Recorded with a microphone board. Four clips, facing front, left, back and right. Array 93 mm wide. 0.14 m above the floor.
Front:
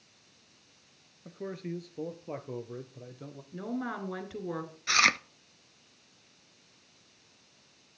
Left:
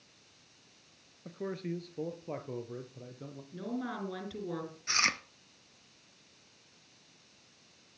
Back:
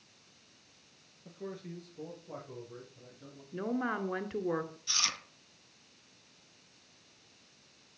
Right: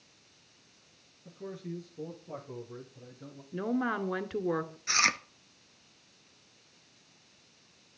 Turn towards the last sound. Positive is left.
turn(degrees=-10)